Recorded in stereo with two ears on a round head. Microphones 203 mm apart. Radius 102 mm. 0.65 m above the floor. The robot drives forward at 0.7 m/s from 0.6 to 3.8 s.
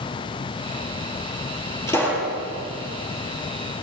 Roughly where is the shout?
I don't hear a shout.